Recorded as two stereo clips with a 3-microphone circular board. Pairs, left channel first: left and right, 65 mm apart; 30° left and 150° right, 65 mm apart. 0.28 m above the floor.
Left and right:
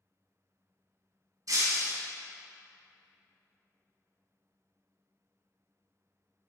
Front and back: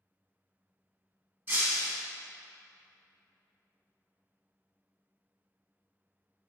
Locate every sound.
1.5 s breaking glass: 90° right, 1.1 m